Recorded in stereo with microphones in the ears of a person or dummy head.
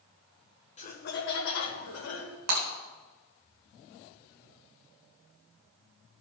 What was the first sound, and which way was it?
Laughter, 35° left (ahead or behind).